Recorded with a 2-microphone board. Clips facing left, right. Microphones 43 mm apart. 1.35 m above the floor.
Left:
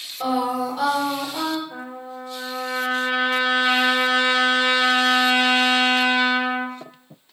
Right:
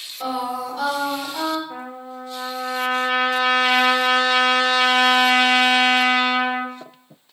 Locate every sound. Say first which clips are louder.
0.2 s singing: left 3 dB; 10° left (ahead or behind), 1.1 m
1.7 s a trumpet: right 1 dB; 75° right (ahead or behind), 0.6 m